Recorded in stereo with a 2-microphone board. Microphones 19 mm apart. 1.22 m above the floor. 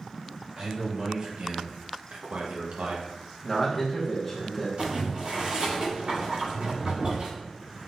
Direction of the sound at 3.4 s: Centre (ahead or behind).